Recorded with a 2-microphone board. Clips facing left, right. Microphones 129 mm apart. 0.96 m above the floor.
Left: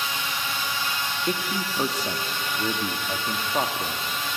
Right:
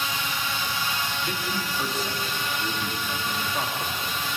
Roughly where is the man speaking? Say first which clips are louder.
Left 2 dB; left.